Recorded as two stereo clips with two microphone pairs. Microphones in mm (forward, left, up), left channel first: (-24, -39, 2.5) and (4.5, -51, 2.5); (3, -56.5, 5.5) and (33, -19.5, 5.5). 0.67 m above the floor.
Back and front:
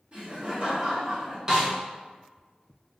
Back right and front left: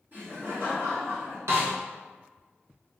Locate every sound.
0.1 s laughter: 20° left, 1.8 m; by 1.4 s 30° left, 2.5 m
1.5 s a snare drum: 40° left, 1.1 m